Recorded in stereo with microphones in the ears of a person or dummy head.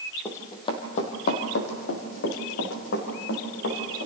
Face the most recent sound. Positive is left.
turn(degrees=75)  # may be behind; listen again after turning